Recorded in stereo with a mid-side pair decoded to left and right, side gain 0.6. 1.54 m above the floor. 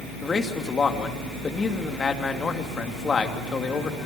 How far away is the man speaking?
About 2.5 m.